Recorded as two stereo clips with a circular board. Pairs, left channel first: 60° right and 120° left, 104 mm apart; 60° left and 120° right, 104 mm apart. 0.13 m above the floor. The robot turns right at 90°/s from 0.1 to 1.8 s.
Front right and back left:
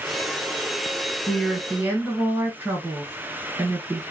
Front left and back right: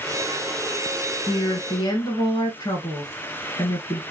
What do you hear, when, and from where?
1.3 s a woman speaking: 10° left, 1.4 m; by 4.0 s 60° left, 1.4 m